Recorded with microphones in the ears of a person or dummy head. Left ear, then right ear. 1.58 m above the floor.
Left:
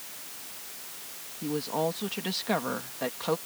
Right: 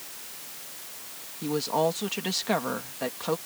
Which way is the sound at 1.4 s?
25° right (ahead or behind).